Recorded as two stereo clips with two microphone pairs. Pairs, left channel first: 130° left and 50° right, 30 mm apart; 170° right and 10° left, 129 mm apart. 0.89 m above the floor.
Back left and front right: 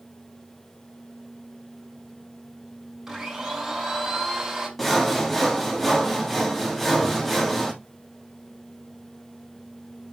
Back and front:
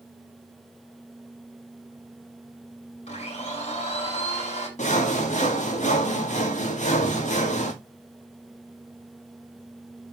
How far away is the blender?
About 5.5 m.